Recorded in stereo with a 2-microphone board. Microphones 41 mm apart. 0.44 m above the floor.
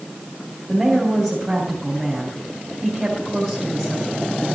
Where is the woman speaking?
15° right (ahead or behind), 2.5 m.